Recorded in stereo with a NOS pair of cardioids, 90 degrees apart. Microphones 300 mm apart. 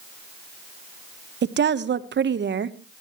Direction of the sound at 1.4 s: 35° right.